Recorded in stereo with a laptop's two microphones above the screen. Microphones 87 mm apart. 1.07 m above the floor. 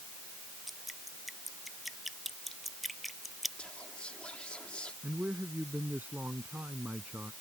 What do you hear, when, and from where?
0.7 s dripping: centre (ahead or behind)
3.6 s whispering: 15° left (ahead or behind)
5.0 s a man speaking: 20° right (ahead or behind)